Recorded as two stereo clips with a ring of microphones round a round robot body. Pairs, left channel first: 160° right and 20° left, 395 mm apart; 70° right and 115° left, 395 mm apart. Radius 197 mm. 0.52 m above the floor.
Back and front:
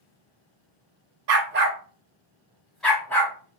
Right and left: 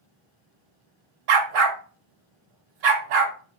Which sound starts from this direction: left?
A dog barking, at 1.3 s.